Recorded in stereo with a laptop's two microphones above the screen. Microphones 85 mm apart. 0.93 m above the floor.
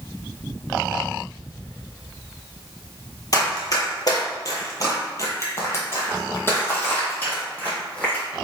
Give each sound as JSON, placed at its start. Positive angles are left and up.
{"t": 3.3, "sound": "running footsteps", "side_deg": 50, "distance_m": 1.4}